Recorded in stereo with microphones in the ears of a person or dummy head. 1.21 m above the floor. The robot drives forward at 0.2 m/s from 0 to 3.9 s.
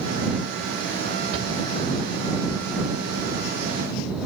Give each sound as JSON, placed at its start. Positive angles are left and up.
{"t": 1.3, "sound": "a shout", "side_deg": -80, "distance_m": 5.0}